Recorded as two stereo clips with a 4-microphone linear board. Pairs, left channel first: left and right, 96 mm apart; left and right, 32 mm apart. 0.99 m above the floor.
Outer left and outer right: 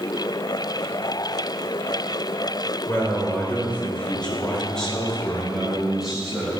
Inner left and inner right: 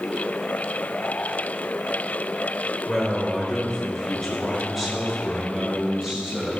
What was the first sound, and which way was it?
A man speaking, 25° left (ahead or behind).